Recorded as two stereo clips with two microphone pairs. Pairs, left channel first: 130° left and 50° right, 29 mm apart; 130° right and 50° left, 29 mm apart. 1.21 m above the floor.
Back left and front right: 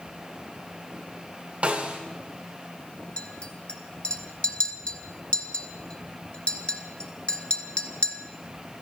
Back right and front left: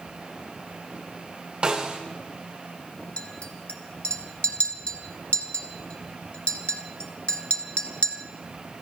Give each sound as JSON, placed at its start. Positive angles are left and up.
{"t": 1.6, "sound": "a snare drum", "azimuth_deg": -5, "distance_m": 2.5}
{"t": 3.2, "sound": "a clink", "azimuth_deg": 180, "distance_m": 1.4}